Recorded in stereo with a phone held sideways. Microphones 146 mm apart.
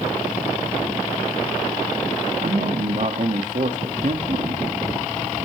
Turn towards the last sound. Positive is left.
turn(degrees=-60)  # may be behind; listen again after turning